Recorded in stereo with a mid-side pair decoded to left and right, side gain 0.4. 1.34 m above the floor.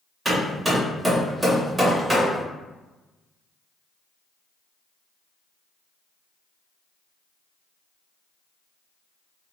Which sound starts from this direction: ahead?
Hammering, at 0.2 s.